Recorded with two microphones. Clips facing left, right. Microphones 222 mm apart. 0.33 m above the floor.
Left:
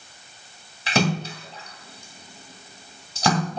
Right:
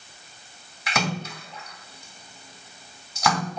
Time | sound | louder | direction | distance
0.9 | a splash | left 6 dB | 30° left (ahead or behind) | 1.9 m